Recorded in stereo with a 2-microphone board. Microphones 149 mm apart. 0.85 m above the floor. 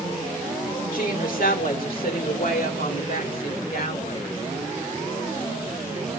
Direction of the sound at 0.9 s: 70° left (ahead or behind).